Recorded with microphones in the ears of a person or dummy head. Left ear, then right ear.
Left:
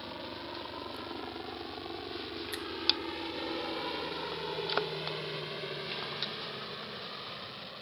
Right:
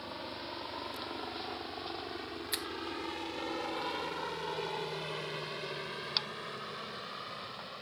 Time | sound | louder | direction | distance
0.0 | a helicopter | even | 25° right (ahead or behind) | ?
2.5 | a finger snap | right 5 dB | 35° right (ahead or behind) | ?